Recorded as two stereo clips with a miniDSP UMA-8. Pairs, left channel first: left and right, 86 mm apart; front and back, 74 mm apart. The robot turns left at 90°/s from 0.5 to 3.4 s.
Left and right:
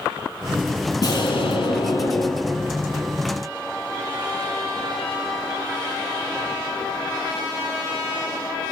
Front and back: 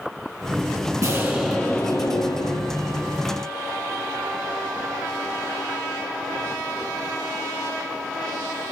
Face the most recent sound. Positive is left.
turn(degrees=-75)